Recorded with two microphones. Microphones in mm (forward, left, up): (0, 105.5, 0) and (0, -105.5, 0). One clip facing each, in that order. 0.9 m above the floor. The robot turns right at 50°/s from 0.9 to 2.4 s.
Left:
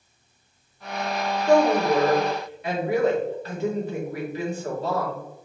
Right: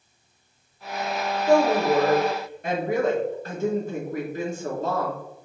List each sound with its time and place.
1.5 s a woman speaking: 175° right, 1.8 m; by 5.2 s 130° right, 1.8 m